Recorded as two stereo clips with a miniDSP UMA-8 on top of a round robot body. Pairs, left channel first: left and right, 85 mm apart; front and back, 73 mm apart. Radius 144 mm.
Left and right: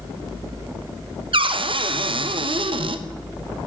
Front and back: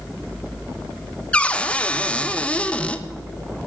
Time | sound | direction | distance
1.3 | a cupboard door | 75° right | 0.7 m